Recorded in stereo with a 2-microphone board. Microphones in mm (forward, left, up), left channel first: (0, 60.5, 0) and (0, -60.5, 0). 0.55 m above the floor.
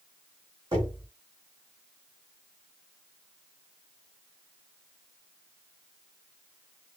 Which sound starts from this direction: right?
Knocking, at 0.7 s.